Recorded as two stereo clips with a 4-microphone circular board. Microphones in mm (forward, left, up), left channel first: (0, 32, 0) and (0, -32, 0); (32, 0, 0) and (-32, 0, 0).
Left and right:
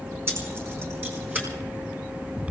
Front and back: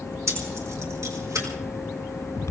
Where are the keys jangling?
140° right, 4.5 m; by 1.5 s 150° right, 4.5 m.